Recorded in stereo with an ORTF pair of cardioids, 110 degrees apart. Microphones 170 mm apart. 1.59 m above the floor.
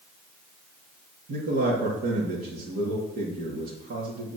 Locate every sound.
1.3 s a man speaking: 65° right, 3 m